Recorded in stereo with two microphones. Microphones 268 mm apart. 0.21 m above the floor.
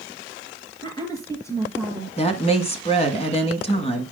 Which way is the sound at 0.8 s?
20° left (ahead or behind).